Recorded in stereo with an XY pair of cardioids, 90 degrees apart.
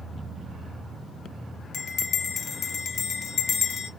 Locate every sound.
1.7 s a bell: 60° left, 0.6 m